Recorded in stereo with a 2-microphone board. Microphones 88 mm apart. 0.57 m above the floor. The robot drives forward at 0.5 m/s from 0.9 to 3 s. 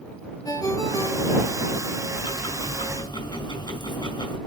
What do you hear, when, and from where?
0.5 s a ringtone: 40° left (ahead or behind), 4 m; by 1.6 s 35° left (ahead or behind), 4.5 m
2.1 s ticking: 55° left (ahead or behind), 4 m; by 4.4 s 50° left (ahead or behind), 4.5 m